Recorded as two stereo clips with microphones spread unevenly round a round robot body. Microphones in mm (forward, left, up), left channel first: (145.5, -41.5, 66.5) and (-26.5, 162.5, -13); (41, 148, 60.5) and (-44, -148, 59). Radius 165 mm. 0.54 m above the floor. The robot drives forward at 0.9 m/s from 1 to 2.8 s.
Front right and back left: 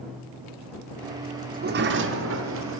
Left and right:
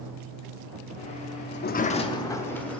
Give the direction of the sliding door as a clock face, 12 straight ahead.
8 o'clock.